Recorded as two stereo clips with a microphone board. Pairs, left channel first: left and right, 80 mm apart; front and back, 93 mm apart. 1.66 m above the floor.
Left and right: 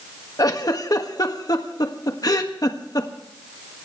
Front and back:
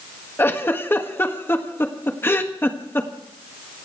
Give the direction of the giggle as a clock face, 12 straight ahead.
10 o'clock.